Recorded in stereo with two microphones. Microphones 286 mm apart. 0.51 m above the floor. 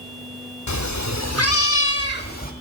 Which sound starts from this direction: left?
A cat meowing, at 0.7 s.